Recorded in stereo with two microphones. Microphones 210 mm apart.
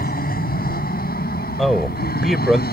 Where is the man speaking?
Centre (ahead or behind).